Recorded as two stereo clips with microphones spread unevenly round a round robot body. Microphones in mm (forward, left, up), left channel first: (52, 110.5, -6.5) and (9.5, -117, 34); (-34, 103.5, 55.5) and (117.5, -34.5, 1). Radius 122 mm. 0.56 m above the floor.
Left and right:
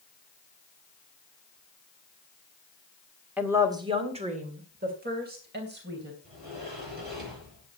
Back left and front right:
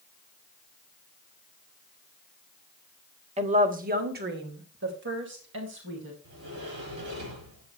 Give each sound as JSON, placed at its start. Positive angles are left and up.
{"t": 3.4, "sound": "a woman speaking", "azimuth_deg": -10, "distance_m": 1.6}
{"t": 6.2, "sound": "a sliding door", "azimuth_deg": -55, "distance_m": 9.5}